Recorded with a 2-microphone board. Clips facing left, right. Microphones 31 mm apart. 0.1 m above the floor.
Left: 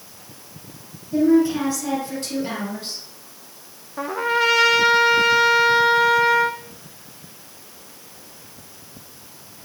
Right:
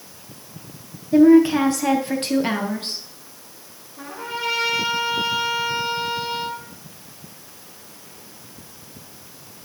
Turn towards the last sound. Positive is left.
turn(degrees=80)